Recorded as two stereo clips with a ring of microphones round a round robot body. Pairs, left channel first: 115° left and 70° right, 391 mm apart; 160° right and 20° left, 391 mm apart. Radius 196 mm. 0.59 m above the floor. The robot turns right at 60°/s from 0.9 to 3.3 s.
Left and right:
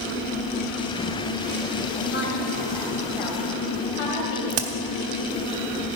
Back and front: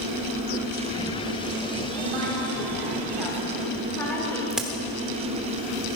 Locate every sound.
2.0 s a woman speaking: 40° left, 4 m; by 4.4 s 120° left, 4 m
4.5 s a crack: 65° right, 1.3 m